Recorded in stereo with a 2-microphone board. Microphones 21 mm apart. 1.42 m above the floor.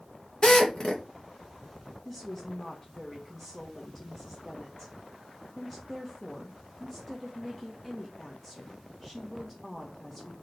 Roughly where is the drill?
Left.